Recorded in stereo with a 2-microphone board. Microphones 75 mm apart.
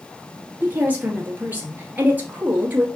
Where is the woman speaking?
20° right (ahead or behind), 1.6 m.